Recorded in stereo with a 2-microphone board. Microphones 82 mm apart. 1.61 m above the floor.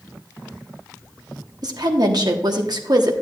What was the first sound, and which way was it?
A woman speaking, 60° right (ahead or behind).